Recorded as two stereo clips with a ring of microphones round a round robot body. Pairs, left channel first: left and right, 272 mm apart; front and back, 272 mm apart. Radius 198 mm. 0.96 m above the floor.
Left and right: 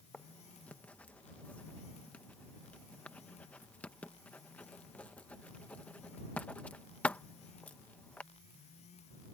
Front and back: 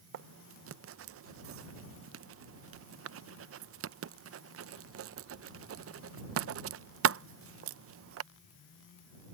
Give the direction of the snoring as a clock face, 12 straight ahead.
No snoring in this recording.